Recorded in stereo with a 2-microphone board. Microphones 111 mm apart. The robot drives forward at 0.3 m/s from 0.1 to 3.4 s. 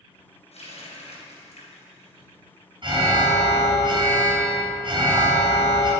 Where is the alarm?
50° right (ahead or behind), 1.8 m.